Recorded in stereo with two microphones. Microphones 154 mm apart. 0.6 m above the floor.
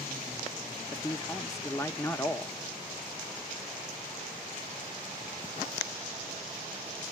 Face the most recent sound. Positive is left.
turn(degrees=20)  # may be behind; listen again after turning